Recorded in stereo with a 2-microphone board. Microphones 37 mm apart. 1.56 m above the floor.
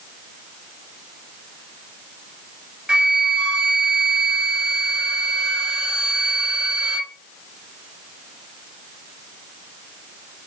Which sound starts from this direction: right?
A flute, at 2.9 s.